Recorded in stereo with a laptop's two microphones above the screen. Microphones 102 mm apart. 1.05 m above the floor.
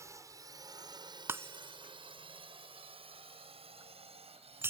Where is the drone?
30° right (ahead or behind); by 4.7 s 75° right (ahead or behind).